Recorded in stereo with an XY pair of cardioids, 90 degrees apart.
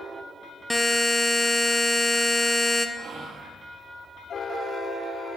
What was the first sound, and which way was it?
A buzzer, 5° left.